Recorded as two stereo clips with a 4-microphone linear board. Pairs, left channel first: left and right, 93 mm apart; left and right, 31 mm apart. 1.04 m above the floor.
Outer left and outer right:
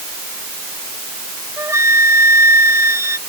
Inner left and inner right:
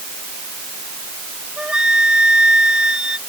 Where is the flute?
25° right (ahead or behind).